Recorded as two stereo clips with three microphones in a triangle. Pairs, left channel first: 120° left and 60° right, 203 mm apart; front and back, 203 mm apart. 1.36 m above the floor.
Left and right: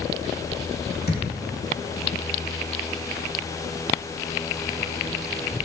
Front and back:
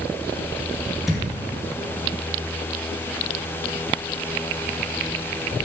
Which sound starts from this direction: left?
A thud, at 1.1 s.